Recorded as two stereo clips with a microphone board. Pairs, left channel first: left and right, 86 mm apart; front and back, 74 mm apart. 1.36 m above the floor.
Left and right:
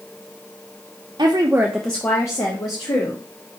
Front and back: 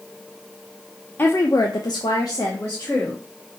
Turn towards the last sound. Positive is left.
turn(degrees=55)